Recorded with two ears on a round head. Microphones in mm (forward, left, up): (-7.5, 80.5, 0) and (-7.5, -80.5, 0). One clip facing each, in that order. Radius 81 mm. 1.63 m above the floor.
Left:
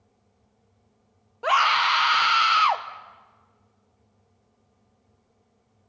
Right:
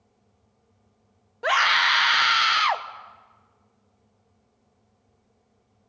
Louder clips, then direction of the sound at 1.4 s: Left 2 dB; 10° right (ahead or behind).